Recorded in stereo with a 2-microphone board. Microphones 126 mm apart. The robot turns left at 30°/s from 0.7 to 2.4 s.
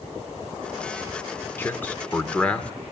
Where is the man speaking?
15° left (ahead or behind), 1.0 m; by 2.7 s 10° left (ahead or behind), 1.0 m.